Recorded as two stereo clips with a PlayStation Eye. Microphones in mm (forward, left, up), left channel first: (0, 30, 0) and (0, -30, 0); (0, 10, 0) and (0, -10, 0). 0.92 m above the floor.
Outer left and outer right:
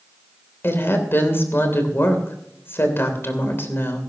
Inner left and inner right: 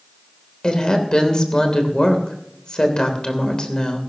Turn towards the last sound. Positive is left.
turn(degrees=40)  # may be behind; listen again after turning